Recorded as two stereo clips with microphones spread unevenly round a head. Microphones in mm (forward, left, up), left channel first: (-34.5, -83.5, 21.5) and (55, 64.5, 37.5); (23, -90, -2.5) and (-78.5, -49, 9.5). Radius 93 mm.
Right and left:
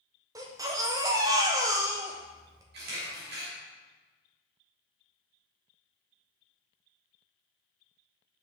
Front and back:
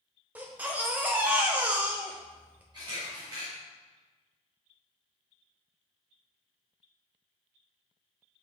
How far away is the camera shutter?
About 2.5 m.